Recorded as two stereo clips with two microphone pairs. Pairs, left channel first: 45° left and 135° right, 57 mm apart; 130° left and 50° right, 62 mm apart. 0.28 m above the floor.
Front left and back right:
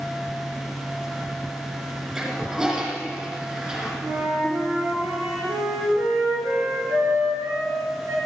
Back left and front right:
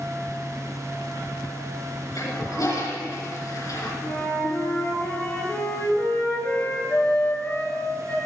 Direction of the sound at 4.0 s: 165° right.